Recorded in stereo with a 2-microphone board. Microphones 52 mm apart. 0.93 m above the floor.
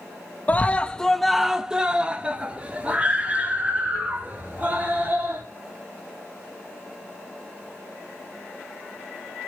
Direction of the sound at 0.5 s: 30° left (ahead or behind).